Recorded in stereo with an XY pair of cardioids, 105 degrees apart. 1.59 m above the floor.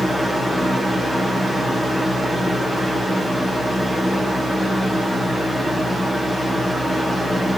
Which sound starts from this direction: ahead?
A fan, at 0.0 s.